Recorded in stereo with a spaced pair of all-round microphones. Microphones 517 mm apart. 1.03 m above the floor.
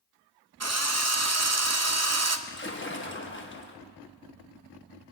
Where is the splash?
25° left (ahead or behind), 0.9 m.